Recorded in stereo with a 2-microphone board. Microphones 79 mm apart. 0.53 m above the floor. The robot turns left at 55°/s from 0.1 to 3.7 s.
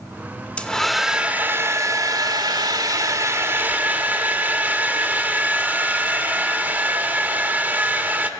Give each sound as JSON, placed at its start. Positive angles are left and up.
{"t": 0.6, "sound": "a hair dryer", "azimuth_deg": 15, "distance_m": 1.2}